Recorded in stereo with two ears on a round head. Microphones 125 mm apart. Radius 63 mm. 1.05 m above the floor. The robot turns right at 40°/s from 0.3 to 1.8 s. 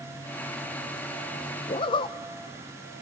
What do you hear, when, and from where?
1.7 s a zipper: 35° left (ahead or behind), 0.5 m